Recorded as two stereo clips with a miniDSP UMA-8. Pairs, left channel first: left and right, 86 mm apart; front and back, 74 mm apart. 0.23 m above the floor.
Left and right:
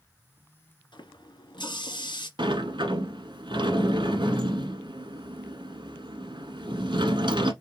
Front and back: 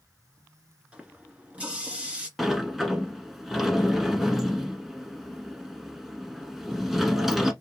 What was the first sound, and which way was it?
A running tap, 110° left.